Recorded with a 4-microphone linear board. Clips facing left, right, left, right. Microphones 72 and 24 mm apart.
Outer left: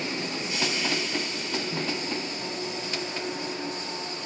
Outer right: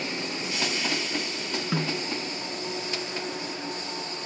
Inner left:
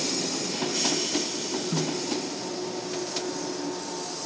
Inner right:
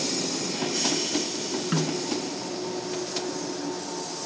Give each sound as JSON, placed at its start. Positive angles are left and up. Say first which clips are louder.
{"t": 1.7, "sound": "a snare drum", "louder": "outer right 6 dB, inner right 3 dB", "side_deg": -80}